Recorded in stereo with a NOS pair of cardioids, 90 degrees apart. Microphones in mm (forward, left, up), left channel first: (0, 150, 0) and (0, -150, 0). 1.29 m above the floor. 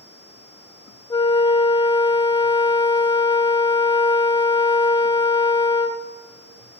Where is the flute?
15° left, 0.8 m.